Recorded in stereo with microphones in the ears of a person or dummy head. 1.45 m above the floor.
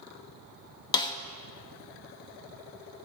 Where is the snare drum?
20° left (ahead or behind), 0.5 m.